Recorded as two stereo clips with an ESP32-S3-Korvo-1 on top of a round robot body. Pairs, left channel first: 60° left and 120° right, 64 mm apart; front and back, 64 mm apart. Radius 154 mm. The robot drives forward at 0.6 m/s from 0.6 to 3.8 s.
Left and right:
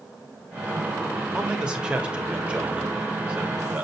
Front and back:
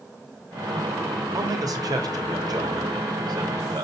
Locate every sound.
1.3 s a man speaking: 160° left, 3.5 m; by 3.9 s 165° left, 5 m